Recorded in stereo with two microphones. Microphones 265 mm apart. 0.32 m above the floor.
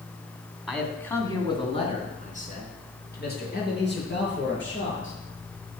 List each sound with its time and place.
0.7 s a man speaking: centre (ahead or behind), 2.5 m; by 5.1 s 45° left (ahead or behind), 6 m